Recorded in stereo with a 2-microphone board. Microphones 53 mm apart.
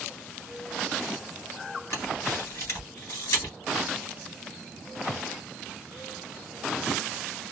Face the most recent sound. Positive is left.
turn(degrees=65)  # may be behind; listen again after turning